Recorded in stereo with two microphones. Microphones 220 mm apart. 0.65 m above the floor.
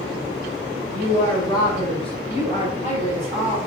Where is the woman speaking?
5° left (ahead or behind), 1.2 m; by 3.6 s 30° left (ahead or behind), 1.4 m.